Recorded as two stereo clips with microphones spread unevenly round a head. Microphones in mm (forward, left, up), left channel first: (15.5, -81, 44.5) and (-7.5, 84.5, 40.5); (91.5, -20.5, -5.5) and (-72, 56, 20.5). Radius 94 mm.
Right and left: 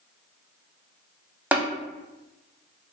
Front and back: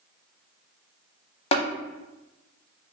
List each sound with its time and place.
1.5 s tapping: 20° left, 0.6 m